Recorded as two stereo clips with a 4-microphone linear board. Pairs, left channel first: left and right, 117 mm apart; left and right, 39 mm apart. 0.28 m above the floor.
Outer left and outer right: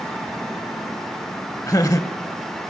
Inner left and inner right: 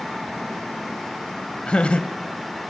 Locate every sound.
1.7 s laughter: 30° left (ahead or behind), 1.1 m